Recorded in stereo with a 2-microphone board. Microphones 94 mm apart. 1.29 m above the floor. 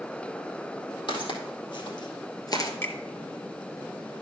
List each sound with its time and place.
1.1 s footsteps: 55° left (ahead or behind), 3 m; by 2.7 s 40° left (ahead or behind), 1.5 m
2.8 s a finger snap: 25° left (ahead or behind), 1.5 m